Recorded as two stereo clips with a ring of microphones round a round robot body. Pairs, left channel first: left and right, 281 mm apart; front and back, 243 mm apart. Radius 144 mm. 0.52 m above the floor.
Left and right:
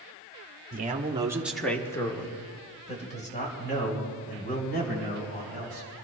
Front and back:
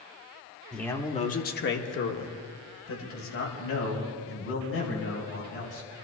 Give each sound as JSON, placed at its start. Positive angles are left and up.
{"t": 0.7, "sound": "a man speaking", "azimuth_deg": -85, "distance_m": 1.4}